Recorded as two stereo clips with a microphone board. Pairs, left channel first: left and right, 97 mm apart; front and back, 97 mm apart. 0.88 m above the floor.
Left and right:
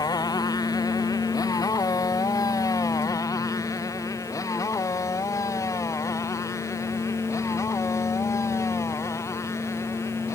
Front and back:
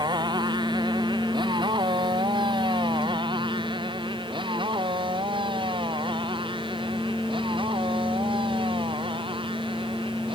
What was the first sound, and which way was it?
A motorcycle, 140° left.